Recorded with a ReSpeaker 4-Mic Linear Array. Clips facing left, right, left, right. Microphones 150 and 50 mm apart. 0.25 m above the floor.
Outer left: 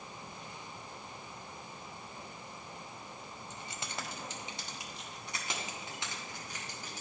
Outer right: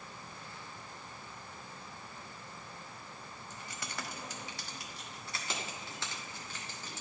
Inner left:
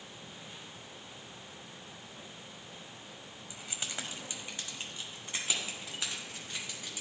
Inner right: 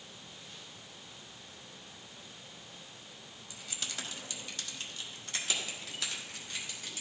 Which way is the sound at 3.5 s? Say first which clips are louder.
Outer left 1 dB, inner left 1 dB; 20° left (ahead or behind).